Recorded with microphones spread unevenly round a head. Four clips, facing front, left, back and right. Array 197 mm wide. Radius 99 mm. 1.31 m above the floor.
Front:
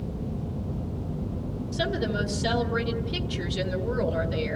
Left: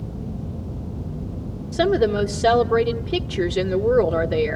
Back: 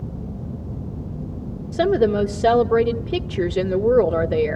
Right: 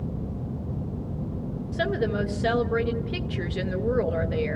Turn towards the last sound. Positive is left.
turn(degrees=150)